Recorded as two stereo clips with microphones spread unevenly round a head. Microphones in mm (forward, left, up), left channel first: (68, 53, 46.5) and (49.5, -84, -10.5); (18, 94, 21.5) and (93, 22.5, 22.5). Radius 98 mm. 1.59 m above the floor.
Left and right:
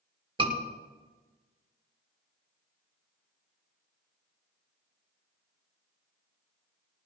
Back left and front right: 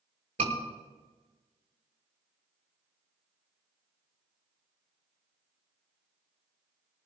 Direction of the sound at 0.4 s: 45° right.